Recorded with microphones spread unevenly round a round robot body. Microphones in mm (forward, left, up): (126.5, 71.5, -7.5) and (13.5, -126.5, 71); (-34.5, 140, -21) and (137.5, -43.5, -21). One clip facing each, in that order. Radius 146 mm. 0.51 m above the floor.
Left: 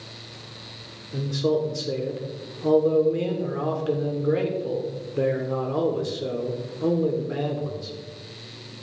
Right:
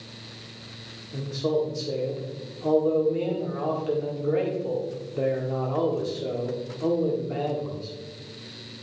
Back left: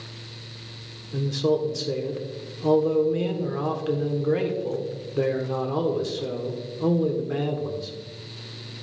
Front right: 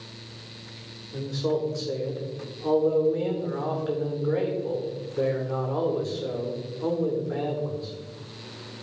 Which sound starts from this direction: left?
A man speaking, at 1.1 s.